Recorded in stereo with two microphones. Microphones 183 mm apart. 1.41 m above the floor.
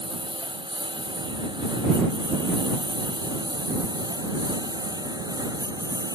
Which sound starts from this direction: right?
A lawn mower, at 0.0 s.